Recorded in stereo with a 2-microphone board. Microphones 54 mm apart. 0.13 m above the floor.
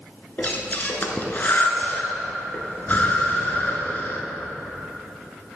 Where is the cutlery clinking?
No cutlery clinking in this recording.